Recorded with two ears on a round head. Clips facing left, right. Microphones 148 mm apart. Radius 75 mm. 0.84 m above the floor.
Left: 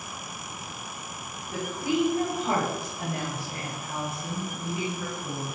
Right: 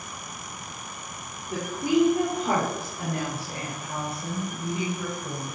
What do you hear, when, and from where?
1.5 s a woman speaking: 45° right (ahead or behind), 2 m; by 5.5 s 25° right (ahead or behind), 4 m